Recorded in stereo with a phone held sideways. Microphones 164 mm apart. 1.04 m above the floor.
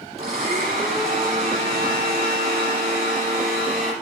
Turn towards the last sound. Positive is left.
turn(degrees=-40)  # may be behind; listen again after turning